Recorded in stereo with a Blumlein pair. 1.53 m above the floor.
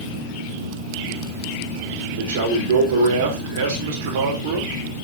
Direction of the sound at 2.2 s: 55° right.